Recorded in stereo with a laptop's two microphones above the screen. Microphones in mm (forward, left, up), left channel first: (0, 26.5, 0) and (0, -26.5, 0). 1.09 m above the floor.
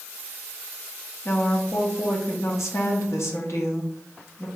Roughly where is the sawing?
I don't hear sawing.